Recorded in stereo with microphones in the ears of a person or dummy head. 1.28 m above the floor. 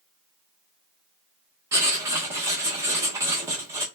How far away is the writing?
About 0.8 m.